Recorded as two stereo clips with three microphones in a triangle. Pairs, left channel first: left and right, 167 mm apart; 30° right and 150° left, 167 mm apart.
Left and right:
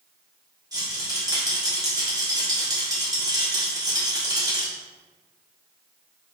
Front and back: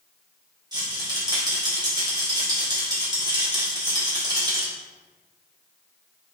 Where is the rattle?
150° right, 1.2 m.